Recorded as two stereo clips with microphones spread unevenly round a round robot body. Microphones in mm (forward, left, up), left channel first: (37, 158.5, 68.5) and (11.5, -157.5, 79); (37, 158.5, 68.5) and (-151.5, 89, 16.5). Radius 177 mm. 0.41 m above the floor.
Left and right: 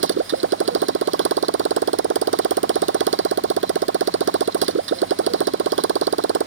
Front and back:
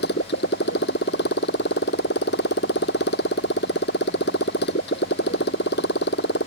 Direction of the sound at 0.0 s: 40° right.